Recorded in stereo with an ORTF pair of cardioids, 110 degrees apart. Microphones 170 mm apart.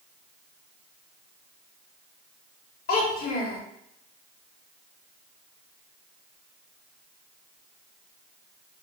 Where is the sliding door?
No sliding door in this recording.